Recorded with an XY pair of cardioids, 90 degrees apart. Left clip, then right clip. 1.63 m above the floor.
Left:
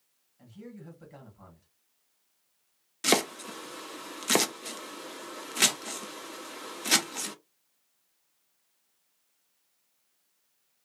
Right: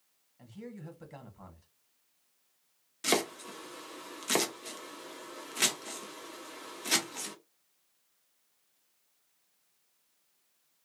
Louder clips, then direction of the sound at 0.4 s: Right 1 dB; 30° right.